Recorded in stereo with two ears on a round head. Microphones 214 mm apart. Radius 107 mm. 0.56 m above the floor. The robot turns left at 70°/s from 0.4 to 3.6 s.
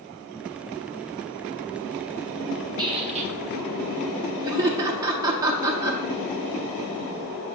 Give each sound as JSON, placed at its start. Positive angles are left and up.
{"t": 2.8, "sound": "a squeak", "azimuth_deg": -30, "distance_m": 0.7}
{"t": 4.4, "sound": "laughter", "side_deg": -15, "distance_m": 0.8}